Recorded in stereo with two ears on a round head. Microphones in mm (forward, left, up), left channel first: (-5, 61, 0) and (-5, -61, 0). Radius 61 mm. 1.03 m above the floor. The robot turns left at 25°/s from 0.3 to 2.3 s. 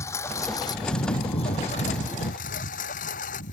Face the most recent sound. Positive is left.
turn(degrees=65)  # may be behind; listen again after turning